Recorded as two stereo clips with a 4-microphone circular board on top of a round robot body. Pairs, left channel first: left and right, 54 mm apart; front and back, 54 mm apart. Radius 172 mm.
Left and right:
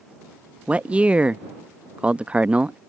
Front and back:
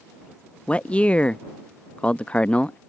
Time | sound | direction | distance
0.7 | a man speaking | 45° right | ?